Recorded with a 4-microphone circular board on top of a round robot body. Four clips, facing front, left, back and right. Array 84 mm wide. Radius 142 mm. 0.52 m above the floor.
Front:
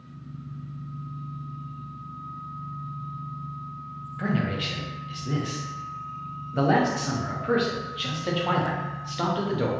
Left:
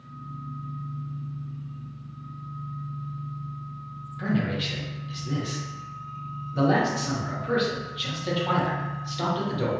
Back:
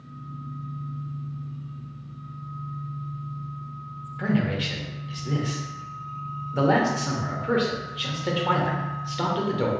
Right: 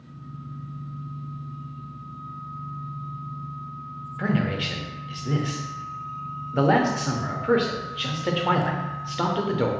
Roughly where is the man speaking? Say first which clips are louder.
Right 2 dB, back 2 dB; right.